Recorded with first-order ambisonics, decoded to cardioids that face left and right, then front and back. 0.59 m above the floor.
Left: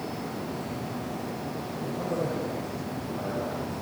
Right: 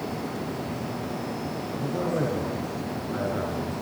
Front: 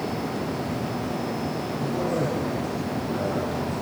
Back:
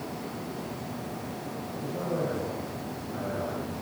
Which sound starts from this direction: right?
A man speaking, at 1.7 s.